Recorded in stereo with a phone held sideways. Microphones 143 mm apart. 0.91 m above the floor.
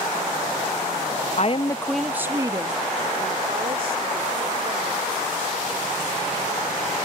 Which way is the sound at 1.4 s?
55° left (ahead or behind).